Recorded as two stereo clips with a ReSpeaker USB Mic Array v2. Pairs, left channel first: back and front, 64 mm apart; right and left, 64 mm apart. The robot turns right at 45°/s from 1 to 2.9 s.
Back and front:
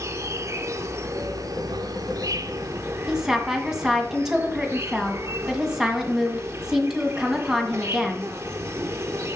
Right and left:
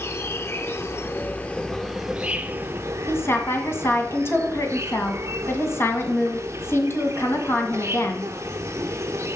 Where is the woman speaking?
75° right, 1.8 m.